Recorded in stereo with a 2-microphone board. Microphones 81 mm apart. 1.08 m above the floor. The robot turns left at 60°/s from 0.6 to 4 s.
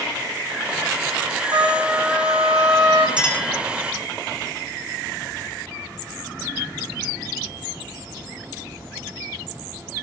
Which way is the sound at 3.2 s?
15° right (ahead or behind).